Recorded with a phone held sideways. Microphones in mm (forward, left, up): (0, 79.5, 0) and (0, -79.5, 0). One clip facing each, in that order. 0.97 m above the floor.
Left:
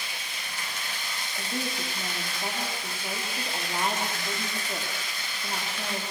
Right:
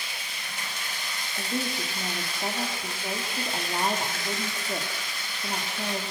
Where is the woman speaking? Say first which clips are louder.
Right 3 dB; 15° right (ahead or behind), 2.5 m.